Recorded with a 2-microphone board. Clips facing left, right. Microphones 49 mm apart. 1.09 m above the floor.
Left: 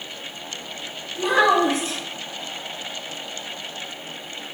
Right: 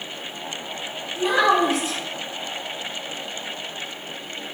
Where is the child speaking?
45° left (ahead or behind), 1.3 m.